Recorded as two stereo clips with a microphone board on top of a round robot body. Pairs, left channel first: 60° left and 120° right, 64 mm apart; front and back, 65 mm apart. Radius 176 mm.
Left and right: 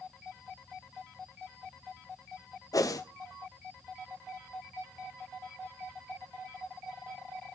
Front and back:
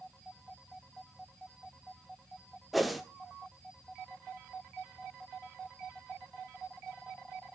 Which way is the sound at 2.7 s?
90° left.